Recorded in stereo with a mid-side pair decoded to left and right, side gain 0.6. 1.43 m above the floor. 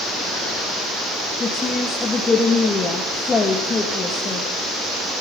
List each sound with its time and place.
1.4 s a woman speaking: 25° left, 2.5 m